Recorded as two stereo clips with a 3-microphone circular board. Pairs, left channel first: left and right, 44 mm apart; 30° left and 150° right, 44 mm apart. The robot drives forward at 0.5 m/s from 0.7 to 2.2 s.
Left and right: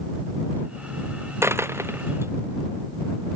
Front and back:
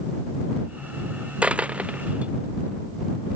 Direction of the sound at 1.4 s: 85° right.